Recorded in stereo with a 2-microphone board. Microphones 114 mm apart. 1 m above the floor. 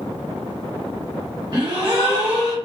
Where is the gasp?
40° right (ahead or behind), 1.2 m.